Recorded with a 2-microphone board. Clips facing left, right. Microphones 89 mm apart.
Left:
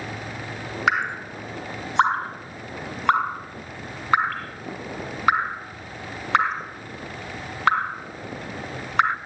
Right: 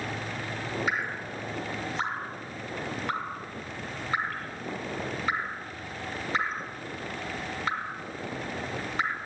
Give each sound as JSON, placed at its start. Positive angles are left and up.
{"t": 0.9, "sound": "dripping", "side_deg": 75, "distance_m": 0.7}